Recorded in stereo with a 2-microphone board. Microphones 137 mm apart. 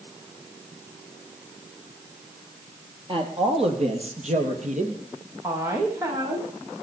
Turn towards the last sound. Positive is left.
turn(degrees=-25)  # may be behind; listen again after turning